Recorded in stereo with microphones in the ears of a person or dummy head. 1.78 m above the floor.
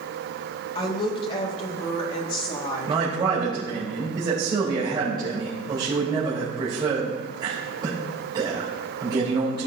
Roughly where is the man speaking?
Right.